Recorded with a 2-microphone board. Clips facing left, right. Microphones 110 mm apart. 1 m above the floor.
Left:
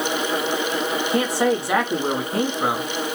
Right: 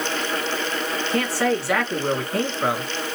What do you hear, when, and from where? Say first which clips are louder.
1.1 s a man speaking: left 2 dB; 20° left (ahead or behind), 1.8 m